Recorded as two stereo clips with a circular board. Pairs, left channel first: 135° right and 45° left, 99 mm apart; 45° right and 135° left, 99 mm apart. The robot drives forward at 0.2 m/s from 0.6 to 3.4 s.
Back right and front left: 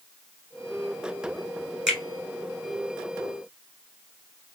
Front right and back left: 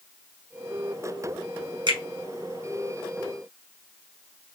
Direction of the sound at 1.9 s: 130° left.